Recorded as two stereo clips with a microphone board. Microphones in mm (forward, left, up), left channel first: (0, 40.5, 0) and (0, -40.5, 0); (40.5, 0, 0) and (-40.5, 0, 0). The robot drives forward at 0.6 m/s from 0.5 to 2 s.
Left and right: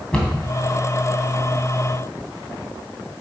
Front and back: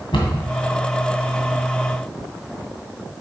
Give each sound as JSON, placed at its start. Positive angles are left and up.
{"t": 0.1, "sound": "a cupboard door", "azimuth_deg": 10, "distance_m": 2.0}